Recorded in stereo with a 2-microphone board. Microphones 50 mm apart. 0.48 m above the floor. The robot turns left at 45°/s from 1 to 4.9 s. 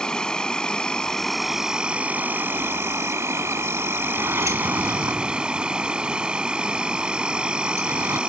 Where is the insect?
15° left; by 8.3 s 160° right.